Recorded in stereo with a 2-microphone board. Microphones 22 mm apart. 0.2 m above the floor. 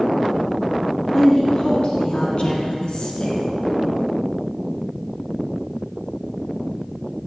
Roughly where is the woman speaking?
Left.